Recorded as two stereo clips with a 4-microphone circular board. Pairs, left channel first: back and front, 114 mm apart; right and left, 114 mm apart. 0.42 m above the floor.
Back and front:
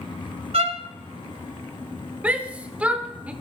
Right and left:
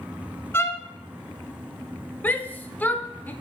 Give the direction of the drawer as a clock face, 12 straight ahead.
I don't hear a drawer.